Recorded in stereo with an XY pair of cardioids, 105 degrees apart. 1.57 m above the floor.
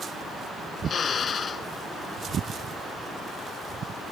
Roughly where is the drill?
Ahead left.